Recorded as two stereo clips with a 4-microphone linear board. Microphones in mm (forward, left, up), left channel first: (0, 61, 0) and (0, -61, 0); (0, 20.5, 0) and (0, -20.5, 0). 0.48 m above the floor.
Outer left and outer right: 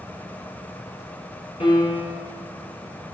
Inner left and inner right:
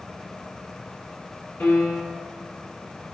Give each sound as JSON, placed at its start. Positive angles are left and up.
{"t": 1.6, "sound": "a piano", "side_deg": 55, "distance_m": 4.0}